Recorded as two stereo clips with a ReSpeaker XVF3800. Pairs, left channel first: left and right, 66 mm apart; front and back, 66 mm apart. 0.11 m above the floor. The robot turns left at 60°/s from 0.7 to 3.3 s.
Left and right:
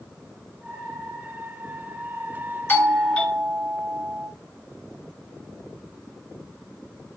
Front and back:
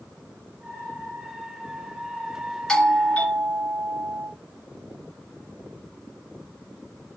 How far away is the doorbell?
About 1.9 m.